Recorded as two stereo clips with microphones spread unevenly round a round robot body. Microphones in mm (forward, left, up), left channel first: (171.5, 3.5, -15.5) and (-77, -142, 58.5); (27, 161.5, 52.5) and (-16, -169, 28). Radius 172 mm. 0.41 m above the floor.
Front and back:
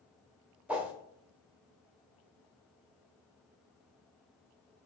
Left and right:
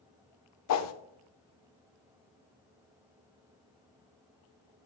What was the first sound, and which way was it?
A whoosh, 110° left.